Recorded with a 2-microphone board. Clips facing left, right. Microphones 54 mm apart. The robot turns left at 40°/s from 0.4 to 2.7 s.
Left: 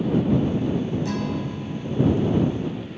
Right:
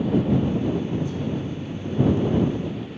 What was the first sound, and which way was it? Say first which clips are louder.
A guitar: left 1 dB; 105° left.